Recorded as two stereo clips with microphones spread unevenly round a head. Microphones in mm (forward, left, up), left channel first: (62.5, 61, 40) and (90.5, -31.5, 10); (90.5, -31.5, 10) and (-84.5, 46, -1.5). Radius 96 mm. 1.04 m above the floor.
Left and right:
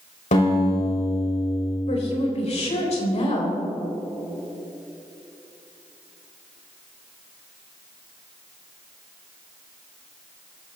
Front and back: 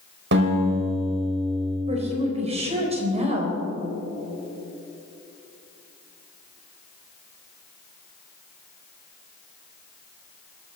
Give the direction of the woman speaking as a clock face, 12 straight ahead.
9 o'clock.